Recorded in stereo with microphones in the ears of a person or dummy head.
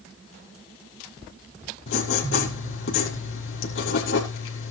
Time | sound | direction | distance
1.9 | writing | 75° left (ahead or behind) | 5.5 m